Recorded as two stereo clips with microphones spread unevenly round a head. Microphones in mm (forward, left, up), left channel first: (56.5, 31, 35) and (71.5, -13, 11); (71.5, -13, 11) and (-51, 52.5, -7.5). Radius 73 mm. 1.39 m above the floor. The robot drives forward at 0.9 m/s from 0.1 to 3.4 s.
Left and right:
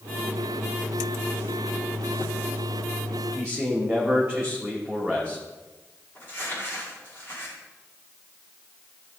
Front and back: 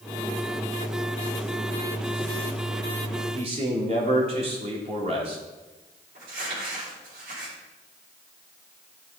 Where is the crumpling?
Straight behind, 5 m.